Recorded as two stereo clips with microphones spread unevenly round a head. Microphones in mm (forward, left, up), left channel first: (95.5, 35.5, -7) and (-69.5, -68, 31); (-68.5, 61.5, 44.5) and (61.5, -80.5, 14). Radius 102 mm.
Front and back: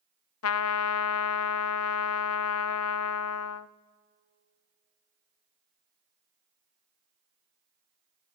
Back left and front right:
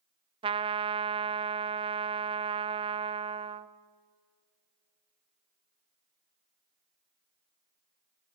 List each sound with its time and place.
0.4 s a trumpet: 20° left, 0.6 m